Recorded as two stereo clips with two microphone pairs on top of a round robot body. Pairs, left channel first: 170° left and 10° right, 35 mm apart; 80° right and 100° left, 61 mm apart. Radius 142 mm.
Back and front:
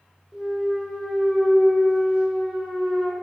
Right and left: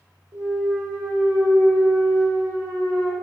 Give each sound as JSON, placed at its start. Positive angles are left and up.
{"t": 0.3, "sound": "a clunk", "azimuth_deg": 75, "distance_m": 1.9}